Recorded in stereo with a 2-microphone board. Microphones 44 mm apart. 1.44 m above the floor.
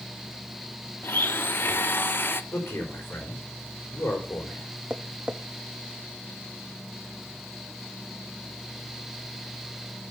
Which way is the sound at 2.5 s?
65° left (ahead or behind).